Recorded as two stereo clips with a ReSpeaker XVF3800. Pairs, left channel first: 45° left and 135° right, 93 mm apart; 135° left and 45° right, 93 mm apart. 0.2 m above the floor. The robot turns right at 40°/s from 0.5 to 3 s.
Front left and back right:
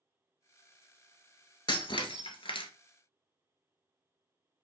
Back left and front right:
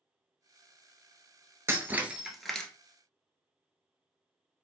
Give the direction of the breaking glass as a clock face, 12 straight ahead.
12 o'clock.